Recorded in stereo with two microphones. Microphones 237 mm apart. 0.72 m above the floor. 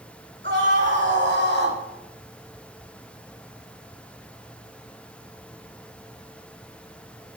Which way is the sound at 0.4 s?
50° right (ahead or behind).